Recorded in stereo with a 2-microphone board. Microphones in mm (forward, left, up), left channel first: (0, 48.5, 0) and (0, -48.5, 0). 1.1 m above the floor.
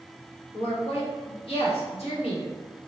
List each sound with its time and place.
0.5 s a woman speaking: 85° left, 1.2 m